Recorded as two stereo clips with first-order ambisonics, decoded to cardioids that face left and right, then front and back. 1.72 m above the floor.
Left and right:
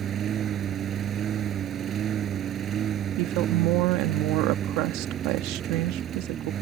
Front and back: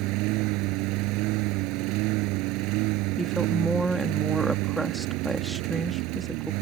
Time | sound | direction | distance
0.0 | a lawn mower | 150° right | ?
3.2 | a woman speaking | 95° right | ?